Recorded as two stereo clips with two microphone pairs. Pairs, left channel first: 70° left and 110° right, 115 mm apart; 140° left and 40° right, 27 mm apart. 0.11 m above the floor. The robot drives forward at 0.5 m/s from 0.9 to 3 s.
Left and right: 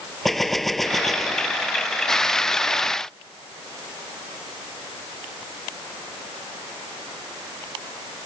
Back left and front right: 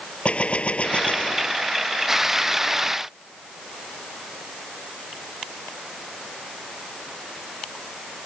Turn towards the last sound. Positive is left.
turn(degrees=165)